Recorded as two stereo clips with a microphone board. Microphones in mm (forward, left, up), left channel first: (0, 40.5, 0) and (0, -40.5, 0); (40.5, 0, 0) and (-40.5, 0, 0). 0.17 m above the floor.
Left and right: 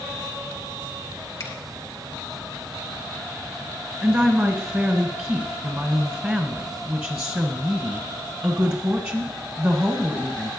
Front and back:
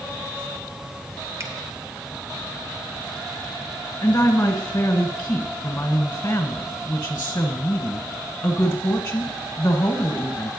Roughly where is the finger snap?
Behind left.